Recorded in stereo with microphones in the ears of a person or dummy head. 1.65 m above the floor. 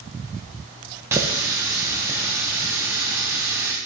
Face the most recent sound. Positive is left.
turn(degrees=-10)  # may be behind; listen again after turning